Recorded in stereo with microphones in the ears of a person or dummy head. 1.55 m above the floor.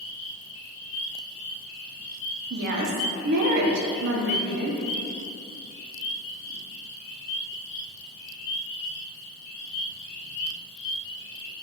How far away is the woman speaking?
About 0.5 m.